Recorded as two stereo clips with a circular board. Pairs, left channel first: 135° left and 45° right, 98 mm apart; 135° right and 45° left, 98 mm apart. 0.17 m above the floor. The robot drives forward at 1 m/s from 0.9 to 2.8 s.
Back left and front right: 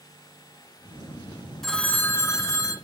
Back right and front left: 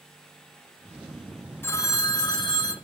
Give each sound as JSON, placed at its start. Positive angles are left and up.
{"t": 1.6, "sound": "a phone ringing", "azimuth_deg": -140, "distance_m": 0.7}